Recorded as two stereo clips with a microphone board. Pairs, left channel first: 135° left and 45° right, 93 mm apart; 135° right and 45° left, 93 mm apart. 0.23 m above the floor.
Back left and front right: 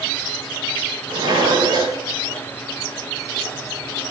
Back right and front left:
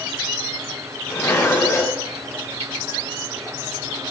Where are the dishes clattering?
80° right, 6.5 m.